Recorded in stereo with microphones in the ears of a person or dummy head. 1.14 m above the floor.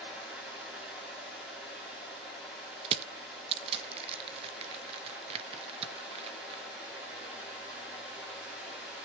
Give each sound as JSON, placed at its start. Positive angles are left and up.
{"t": 0.0, "sound": "a fan", "side_deg": -5, "distance_m": 5.0}
{"t": 2.9, "sound": "crushing", "side_deg": -30, "distance_m": 0.9}